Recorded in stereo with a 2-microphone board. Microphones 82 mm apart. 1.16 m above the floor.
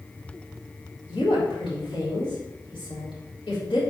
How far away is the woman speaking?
About 3.5 m.